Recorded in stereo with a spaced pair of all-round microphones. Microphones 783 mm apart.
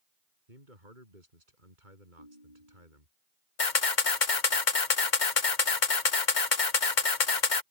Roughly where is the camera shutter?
Left.